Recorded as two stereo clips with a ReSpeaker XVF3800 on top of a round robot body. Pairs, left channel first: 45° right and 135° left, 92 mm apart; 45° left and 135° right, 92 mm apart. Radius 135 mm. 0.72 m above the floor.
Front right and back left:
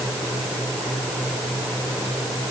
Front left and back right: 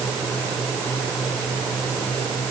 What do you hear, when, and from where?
Only background noise.